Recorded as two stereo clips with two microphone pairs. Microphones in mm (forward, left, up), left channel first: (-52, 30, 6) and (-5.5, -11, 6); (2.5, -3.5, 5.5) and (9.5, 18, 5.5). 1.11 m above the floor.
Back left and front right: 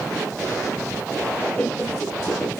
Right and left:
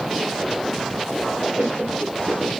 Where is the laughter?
75° left, 1.1 m; by 2.6 s 115° left, 1.3 m.